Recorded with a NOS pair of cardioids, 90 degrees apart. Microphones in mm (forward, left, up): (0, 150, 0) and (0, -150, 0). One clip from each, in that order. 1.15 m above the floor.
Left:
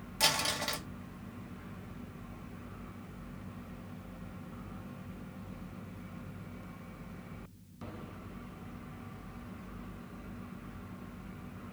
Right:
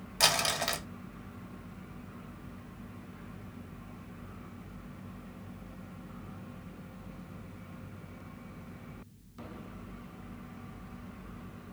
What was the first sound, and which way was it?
Crumpling, 35° right.